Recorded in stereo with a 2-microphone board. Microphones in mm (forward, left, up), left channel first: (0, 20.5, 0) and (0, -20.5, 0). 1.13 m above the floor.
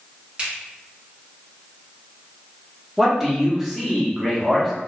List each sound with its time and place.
0.4 s a finger snap: 25° right (ahead or behind), 2.0 m
3.0 s a man speaking: centre (ahead or behind), 0.9 m